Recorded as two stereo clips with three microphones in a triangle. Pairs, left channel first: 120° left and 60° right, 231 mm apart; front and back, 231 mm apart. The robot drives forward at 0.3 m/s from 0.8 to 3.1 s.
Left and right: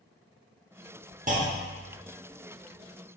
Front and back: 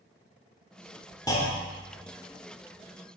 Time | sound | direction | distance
1.3 | a clunk | 60° right | 0.6 m